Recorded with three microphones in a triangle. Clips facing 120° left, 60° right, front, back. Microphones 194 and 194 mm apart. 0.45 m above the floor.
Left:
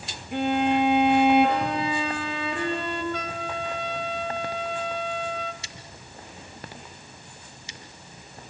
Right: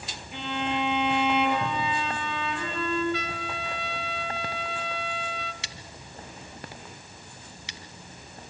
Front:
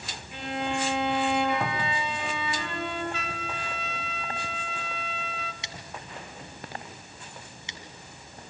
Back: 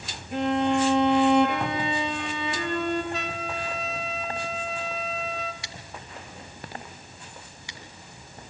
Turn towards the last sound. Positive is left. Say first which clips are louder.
# even, front 1 dB
turn(degrees=-65)